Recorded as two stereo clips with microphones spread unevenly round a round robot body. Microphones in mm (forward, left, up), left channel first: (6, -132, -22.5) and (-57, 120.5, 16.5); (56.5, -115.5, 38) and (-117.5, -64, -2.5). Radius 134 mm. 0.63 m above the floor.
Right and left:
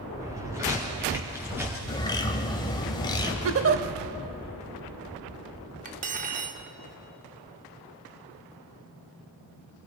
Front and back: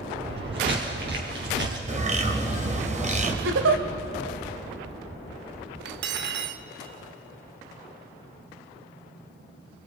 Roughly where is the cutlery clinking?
Behind.